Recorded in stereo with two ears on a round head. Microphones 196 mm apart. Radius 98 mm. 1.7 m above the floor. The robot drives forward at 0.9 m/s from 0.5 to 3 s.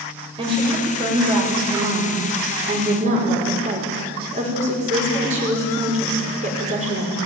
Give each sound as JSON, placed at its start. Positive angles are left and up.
{"t": 0.4, "sound": "a woman speaking", "side_deg": -25, "distance_m": 7.0}